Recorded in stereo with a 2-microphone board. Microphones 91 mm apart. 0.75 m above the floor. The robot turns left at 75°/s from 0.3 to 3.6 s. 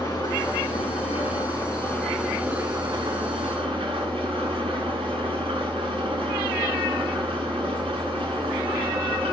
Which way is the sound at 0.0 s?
140° left.